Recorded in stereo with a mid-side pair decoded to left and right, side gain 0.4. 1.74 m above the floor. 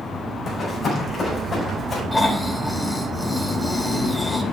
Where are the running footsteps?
65° left, 6 m; by 2.0 s 50° left, 7 m.